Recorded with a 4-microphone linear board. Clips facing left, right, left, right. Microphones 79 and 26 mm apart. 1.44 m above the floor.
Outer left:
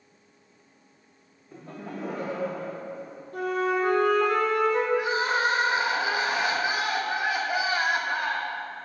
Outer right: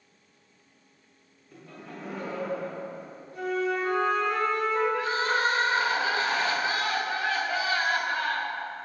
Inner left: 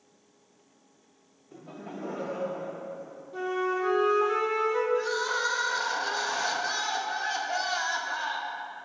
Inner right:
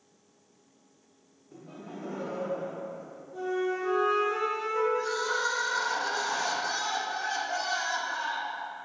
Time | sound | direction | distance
1.5 | laughter | 25° left (ahead or behind) | 0.7 m
3.3 | a flute | 55° left (ahead or behind) | 1.4 m
5.0 | crying | 15° left (ahead or behind) | 1.1 m